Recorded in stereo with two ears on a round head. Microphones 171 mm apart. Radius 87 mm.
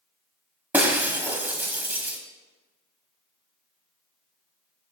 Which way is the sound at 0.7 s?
10° right (ahead or behind).